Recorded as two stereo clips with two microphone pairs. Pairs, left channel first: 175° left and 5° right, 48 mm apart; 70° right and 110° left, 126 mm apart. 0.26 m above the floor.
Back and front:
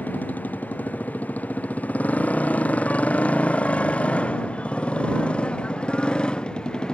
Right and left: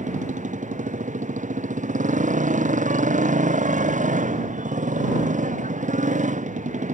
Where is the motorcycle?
120° left; by 7.0 s 100° left.